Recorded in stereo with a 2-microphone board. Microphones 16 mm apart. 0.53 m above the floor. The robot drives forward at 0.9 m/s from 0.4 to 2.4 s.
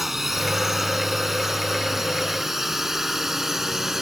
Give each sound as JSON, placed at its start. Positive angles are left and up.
{"t": 0.0, "sound": "a drone", "side_deg": -20}